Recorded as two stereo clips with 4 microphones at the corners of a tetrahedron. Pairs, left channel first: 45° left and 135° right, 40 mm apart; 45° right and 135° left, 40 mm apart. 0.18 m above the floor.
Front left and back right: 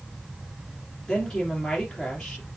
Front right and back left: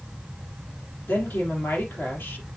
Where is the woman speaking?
30° right, 3.5 m.